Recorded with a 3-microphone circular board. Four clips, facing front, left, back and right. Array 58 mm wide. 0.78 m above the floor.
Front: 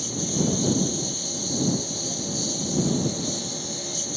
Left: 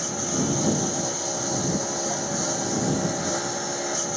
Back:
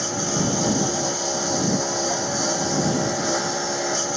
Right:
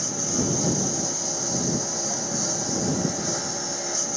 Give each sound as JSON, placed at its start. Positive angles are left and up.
{"t": 0.0, "sound": "a lawn mower", "azimuth_deg": 170}